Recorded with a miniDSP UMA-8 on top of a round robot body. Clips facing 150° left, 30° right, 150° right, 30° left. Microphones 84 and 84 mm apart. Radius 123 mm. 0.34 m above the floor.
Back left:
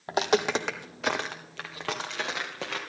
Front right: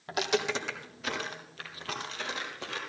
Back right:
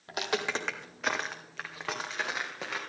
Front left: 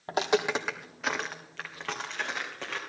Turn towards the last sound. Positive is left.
turn(degrees=130)